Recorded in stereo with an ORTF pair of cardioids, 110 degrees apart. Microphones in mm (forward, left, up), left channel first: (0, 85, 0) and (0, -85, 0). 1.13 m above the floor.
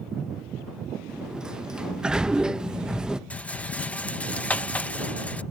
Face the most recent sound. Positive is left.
turn(degrees=10)